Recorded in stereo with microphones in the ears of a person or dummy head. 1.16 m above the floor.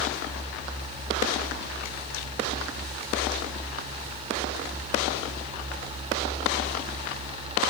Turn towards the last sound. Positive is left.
No sound to turn to.